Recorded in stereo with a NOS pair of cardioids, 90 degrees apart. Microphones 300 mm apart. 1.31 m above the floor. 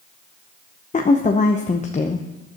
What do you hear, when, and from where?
0.9 s a woman speaking: 25° left, 0.8 m